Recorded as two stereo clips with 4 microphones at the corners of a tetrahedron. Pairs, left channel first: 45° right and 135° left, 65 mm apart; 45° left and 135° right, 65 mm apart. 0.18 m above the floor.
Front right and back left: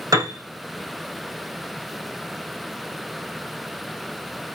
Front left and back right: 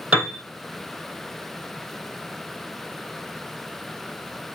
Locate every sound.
0.1 s a piano: 160° left, 3 m